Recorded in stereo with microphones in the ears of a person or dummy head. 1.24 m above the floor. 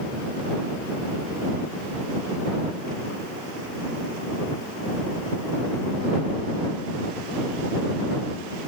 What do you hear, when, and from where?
Only background noise.